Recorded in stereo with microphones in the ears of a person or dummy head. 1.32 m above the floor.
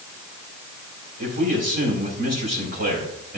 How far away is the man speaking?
About 5 m.